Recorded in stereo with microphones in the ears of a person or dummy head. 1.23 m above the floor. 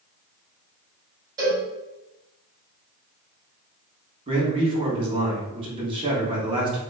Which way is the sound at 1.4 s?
20° right (ahead or behind).